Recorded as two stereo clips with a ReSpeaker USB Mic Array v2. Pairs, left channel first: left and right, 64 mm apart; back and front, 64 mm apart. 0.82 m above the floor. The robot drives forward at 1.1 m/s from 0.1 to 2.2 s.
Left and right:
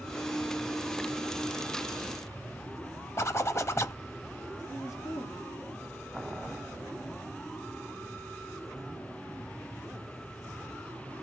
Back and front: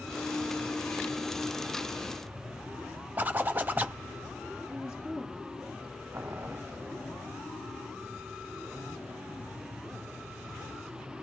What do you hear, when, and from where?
3.2 s a zipper: 55° left, 0.7 m
4.7 s a woman speaking: 75° left, 1.8 m
6.1 s boiling: 5° right, 0.5 m